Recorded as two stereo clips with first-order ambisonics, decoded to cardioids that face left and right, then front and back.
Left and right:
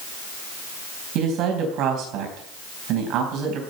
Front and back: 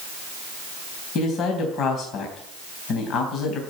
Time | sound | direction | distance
1.1 | a man speaking | 50° right | 3.5 m